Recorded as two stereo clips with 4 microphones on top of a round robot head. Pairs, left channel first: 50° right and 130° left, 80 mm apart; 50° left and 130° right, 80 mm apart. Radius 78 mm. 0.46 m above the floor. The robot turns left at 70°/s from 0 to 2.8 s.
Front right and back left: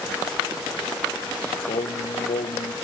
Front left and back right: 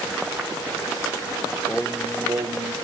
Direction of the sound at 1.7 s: 20° right.